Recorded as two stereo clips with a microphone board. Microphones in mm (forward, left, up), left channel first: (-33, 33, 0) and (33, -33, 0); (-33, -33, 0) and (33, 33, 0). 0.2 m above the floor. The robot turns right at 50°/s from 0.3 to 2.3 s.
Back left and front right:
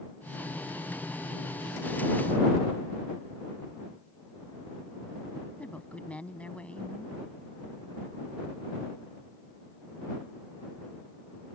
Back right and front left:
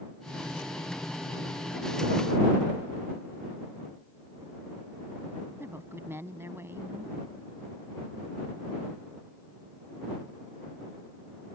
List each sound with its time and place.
5.6 s a woman speaking: 75° left